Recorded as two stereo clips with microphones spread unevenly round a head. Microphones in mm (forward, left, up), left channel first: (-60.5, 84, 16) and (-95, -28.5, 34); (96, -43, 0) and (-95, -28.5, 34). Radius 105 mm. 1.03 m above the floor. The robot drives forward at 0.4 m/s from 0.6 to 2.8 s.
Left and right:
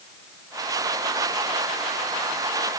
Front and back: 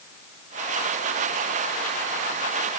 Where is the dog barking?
No dog barking in this recording.